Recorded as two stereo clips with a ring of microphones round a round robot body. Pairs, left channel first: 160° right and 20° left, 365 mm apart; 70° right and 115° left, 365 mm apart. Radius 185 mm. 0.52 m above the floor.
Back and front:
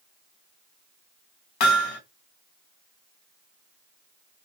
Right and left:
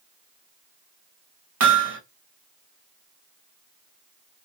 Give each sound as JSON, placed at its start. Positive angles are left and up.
{"t": 1.6, "sound": "hammering", "azimuth_deg": 170, "distance_m": 1.4}